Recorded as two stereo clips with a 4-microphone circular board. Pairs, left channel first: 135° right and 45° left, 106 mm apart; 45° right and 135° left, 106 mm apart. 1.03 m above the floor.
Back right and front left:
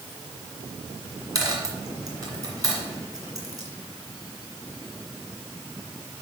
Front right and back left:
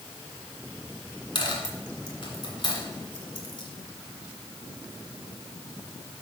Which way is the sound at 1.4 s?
5° right.